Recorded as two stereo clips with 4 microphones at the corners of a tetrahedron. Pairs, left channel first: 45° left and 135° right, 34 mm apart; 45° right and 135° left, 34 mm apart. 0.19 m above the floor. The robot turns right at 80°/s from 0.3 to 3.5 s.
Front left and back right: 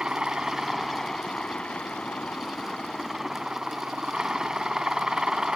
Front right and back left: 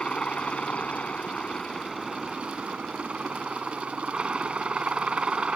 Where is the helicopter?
85° right; by 5.6 s 170° left.